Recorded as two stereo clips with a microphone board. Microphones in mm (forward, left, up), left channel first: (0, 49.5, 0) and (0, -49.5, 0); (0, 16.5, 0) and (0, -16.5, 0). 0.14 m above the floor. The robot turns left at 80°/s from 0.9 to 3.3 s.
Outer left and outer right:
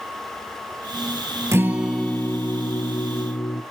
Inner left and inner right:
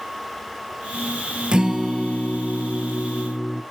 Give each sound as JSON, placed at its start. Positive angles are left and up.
{"t": 1.5, "sound": "a guitar", "azimuth_deg": -150, "distance_m": 1.0}